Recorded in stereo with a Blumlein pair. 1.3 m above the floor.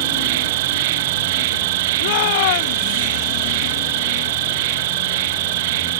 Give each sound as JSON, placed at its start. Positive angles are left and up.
{"t": 0.0, "sound": "an insect", "azimuth_deg": -50}
{"t": 2.0, "sound": "a shout", "azimuth_deg": 50}